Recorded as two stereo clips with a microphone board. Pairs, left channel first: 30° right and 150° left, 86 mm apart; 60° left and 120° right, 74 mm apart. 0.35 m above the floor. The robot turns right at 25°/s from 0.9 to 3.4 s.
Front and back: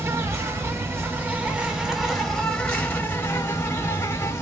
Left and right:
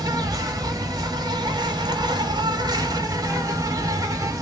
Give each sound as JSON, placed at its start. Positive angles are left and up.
{"t": 0.0, "sound": "an insect", "azimuth_deg": -150, "distance_m": 1.0}